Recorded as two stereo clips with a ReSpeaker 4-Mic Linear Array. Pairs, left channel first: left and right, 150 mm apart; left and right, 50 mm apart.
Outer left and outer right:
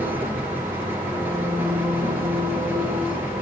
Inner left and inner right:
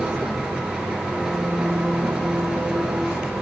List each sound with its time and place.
0.0 s an engine running: 15° right (ahead or behind), 2 m